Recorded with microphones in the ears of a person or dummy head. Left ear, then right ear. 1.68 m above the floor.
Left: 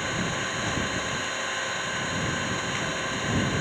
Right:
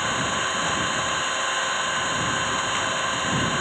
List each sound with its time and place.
0.0 s an engine running: 35° right (ahead or behind)